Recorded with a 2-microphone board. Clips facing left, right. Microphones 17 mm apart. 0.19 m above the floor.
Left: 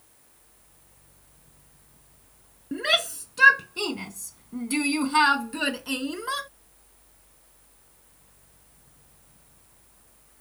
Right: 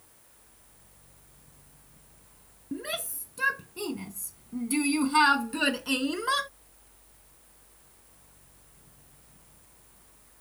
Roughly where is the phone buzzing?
No phone buzzing in this recording.